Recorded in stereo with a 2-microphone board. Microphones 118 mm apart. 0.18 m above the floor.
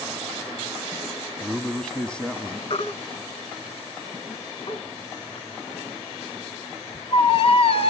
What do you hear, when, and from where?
1.4 s a man speaking: 5° left (ahead or behind), 1.1 m; by 2.6 s 10° left (ahead or behind), 1.1 m
2.7 s a baby crying: 60° left (ahead or behind), 1.2 m